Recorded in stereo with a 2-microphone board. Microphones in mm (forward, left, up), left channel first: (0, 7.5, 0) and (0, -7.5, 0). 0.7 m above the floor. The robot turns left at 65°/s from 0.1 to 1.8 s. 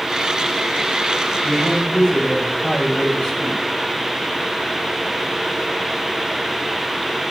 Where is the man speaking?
15° left (ahead or behind), 10 m; by 3.6 s 40° left (ahead or behind), 10 m.